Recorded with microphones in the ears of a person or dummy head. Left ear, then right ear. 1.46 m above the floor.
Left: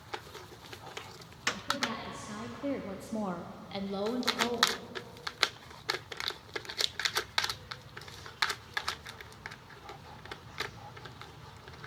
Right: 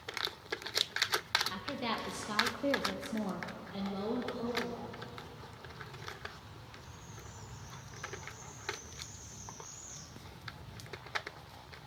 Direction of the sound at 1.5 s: 55° right (ahead or behind).